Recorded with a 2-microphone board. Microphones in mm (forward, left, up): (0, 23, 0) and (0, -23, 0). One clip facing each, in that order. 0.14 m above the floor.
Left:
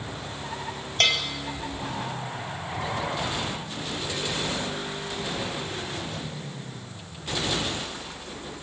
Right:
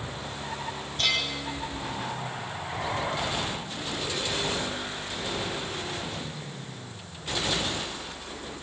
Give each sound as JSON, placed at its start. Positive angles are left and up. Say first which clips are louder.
{"t": 1.0, "sound": "a bell", "louder": "left 4 dB", "side_deg": 60, "distance_m": 3.5}